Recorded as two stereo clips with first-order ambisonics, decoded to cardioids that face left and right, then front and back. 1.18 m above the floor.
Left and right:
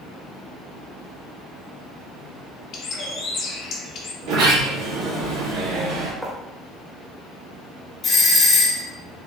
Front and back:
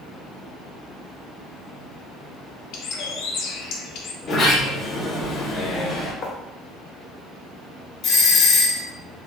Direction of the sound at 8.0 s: 25° left.